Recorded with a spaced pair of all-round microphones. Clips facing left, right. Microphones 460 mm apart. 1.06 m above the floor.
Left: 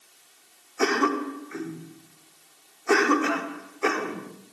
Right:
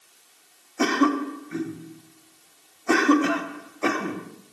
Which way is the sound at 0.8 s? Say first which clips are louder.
Right 3 dB; 50° right (ahead or behind).